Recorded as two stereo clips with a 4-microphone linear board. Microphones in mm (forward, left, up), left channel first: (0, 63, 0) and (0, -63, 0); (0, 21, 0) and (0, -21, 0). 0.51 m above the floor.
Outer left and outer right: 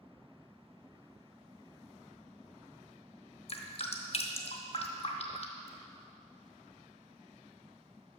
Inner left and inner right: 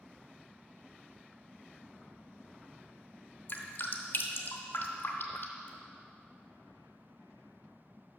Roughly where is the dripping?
Left.